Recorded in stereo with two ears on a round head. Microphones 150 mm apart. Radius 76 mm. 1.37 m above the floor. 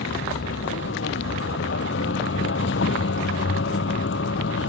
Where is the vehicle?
85° left.